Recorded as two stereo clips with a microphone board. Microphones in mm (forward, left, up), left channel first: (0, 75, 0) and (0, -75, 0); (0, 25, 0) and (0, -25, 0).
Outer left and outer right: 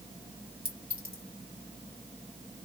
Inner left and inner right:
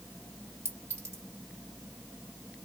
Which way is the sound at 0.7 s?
75° right (ahead or behind).